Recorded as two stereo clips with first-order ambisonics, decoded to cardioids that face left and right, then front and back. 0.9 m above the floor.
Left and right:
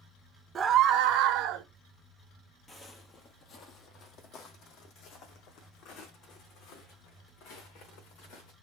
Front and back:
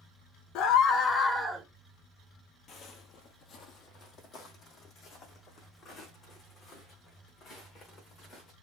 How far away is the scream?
About 0.9 m.